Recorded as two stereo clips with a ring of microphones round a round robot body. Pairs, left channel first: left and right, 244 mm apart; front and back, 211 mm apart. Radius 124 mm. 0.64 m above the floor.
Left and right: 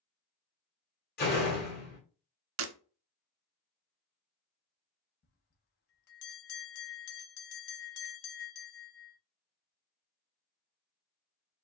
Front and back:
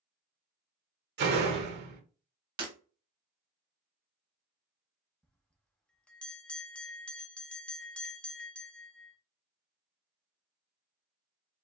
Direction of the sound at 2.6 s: 110° right.